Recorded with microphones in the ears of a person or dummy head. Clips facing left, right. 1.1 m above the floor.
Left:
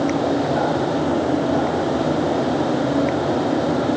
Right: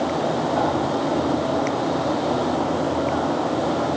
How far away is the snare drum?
No snare drum in this recording.